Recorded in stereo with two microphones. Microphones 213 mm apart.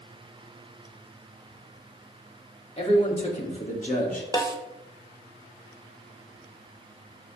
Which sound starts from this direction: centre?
A snare drum, at 4.3 s.